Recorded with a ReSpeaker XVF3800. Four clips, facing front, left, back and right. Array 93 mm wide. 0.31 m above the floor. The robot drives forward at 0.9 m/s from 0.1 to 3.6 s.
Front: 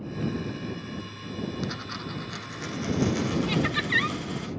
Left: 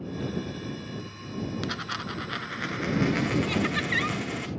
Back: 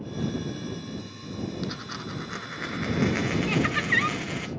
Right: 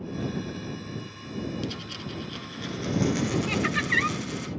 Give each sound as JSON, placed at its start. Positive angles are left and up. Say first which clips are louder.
{"t": 1.6, "sound": "a dropped coin", "louder": "left 3 dB, even", "azimuth_deg": 80, "distance_m": 1.0}
{"t": 3.5, "sound": "laughter", "louder": "right 1 dB, back 1 dB", "azimuth_deg": -145, "distance_m": 1.8}